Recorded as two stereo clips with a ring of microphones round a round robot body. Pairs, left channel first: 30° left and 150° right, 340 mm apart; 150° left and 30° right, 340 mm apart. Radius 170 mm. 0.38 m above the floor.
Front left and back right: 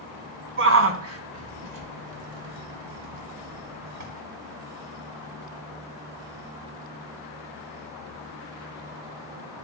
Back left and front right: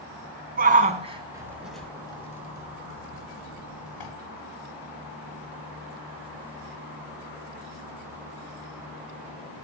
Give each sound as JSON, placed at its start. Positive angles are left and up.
{"t": 0.6, "sound": "a shout", "azimuth_deg": -95, "distance_m": 3.5}